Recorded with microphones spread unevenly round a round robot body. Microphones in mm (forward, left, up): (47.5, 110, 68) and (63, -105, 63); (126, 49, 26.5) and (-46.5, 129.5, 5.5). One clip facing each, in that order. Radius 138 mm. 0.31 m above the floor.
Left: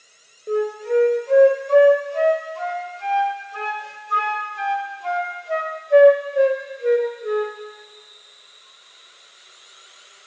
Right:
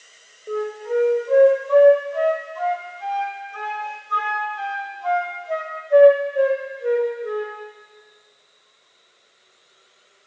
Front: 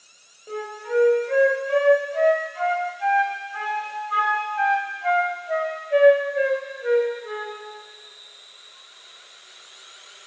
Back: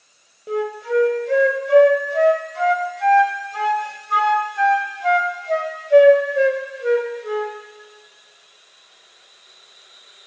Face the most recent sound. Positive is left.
turn(degrees=150)